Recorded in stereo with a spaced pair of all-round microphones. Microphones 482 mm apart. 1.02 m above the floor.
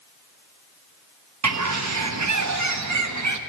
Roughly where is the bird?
Right.